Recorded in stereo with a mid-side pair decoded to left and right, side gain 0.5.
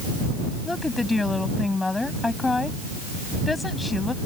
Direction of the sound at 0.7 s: 15° left.